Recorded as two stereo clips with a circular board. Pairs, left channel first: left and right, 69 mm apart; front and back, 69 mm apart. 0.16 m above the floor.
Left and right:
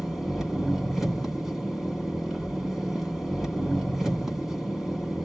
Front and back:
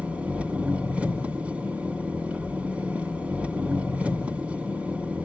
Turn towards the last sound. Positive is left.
turn(degrees=-160)